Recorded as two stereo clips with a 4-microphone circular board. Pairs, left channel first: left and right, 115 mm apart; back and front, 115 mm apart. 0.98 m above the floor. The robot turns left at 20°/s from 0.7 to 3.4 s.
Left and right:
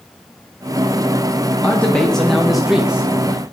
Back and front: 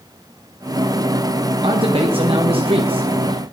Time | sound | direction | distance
1.6 | a man speaking | 15° left | 0.6 m